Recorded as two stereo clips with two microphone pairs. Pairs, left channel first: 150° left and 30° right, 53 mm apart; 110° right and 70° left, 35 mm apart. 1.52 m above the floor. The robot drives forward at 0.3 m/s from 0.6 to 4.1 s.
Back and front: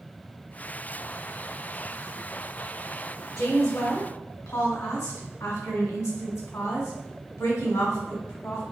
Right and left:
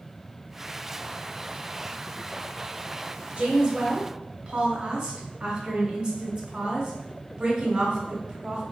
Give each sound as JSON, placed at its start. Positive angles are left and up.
{"t": 3.4, "sound": "a woman speaking", "azimuth_deg": 125, "distance_m": 1.0}